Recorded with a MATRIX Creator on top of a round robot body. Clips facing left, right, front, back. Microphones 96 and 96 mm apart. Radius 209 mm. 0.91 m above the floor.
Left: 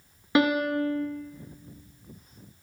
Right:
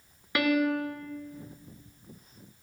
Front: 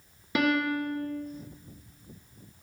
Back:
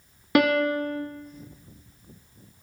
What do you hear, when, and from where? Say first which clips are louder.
0.3 s a piano: left 3 dB, back 5 dB; 155° left, 0.7 m